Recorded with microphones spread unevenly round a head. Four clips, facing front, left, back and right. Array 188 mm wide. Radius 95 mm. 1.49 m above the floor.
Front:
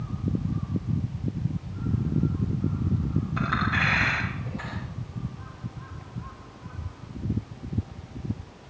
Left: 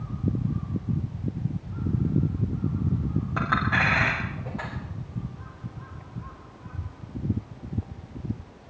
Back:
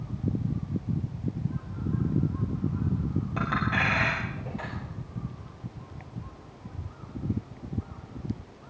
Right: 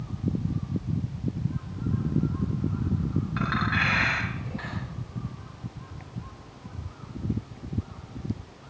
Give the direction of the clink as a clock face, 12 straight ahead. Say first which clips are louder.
Left 4 dB, front 1 dB; 8 o'clock.